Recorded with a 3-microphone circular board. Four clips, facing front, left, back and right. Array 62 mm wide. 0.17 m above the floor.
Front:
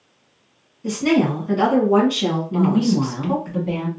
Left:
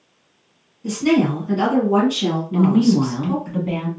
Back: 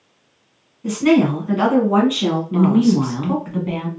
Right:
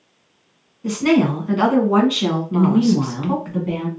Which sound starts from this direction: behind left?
A woman speaking, at 2.5 s.